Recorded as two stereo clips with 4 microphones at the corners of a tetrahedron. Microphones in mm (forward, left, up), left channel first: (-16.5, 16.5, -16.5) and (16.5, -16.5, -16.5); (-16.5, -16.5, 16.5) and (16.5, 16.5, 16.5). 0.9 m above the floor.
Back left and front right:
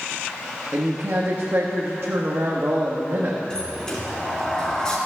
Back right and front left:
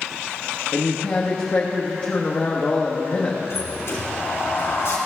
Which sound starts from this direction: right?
A woman speaking, at 0.7 s.